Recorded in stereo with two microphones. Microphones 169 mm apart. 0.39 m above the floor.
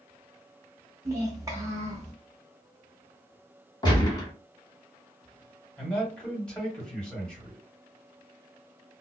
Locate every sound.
1.1 s a child speaking: 20° right (ahead or behind), 0.6 m
3.8 s a gunshot: 25° left (ahead or behind), 1.1 m
5.8 s a man speaking: 5° left (ahead or behind), 1.4 m